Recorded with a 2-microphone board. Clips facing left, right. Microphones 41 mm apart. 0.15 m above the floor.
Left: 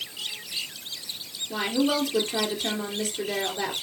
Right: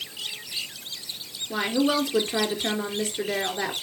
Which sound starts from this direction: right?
A woman speaking, at 1.5 s.